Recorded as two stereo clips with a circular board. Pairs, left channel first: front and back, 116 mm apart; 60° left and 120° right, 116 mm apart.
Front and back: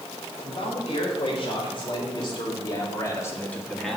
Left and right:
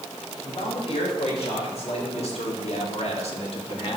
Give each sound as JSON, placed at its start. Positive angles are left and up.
{"t": 0.4, "sound": "a man speaking", "azimuth_deg": 30, "distance_m": 4.5}